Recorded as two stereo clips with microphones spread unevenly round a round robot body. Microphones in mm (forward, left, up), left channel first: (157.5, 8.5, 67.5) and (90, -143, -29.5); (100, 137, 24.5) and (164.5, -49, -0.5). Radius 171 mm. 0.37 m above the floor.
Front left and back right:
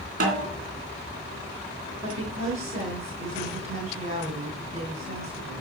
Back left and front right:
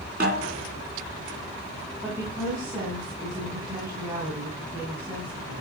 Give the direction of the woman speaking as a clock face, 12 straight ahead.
5 o'clock.